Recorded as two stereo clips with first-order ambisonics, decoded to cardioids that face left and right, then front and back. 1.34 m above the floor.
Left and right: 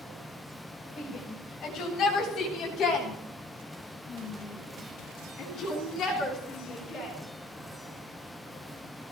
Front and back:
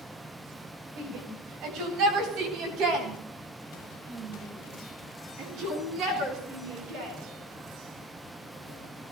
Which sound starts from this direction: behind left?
A shout, at 1.0 s.